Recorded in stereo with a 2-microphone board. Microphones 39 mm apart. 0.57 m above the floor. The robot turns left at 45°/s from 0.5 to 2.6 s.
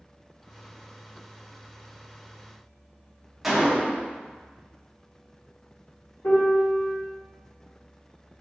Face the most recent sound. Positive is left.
turn(degrees=60)  # may be behind; listen again after turning